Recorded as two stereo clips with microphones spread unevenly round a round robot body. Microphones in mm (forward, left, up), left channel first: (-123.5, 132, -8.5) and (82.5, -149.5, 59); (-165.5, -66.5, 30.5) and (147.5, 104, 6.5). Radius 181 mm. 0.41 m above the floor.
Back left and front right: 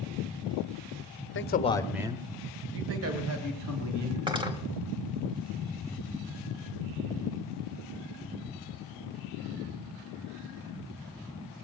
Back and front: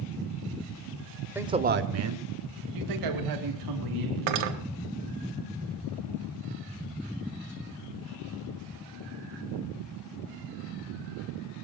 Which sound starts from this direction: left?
A man speaking, at 1.4 s.